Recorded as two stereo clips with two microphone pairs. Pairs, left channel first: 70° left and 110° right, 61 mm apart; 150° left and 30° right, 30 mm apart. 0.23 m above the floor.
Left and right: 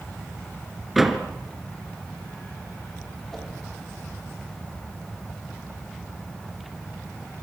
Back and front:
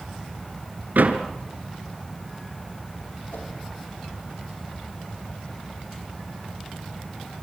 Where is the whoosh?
160° left, 8.5 m.